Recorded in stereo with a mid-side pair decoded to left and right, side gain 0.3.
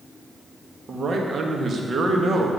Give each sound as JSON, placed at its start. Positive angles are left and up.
{"t": 0.9, "sound": "a man speaking", "azimuth_deg": -60, "distance_m": 1.8}